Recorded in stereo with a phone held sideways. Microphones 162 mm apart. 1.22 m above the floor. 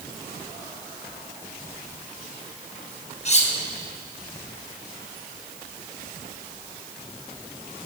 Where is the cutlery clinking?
45° left (ahead or behind), 1.1 m.